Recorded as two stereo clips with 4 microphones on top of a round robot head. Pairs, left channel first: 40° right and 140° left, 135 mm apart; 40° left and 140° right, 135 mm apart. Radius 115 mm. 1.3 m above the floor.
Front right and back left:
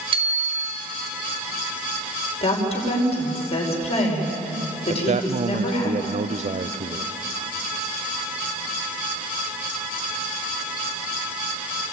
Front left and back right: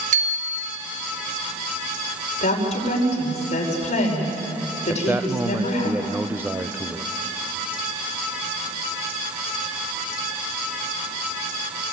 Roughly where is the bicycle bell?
Behind.